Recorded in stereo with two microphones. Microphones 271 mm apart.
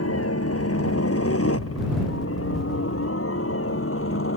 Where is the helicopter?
55° left (ahead or behind); by 4.4 s 50° left (ahead or behind).